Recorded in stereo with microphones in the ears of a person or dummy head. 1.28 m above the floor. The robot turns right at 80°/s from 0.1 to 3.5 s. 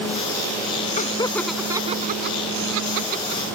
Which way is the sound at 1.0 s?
40° left (ahead or behind).